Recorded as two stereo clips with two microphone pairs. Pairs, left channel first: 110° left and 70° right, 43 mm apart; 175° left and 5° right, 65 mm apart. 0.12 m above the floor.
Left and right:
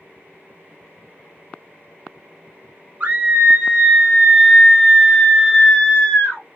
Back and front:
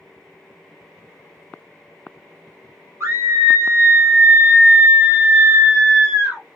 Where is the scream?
25° right, 2 m; by 6.4 s 75° left, 1.8 m.